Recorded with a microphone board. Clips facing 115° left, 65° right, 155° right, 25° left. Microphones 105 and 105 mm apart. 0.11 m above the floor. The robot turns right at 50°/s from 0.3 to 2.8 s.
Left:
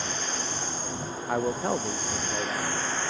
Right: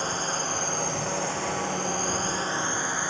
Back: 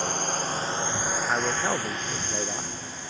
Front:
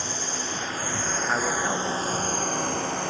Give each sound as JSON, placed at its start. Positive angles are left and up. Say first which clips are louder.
{"t": 0.0, "sound": "a drone", "louder": "right 4 dB, back 4 dB", "azimuth_deg": -120}
{"t": 1.3, "sound": "a man speaking", "louder": "left 3 dB, front 1 dB", "azimuth_deg": 110}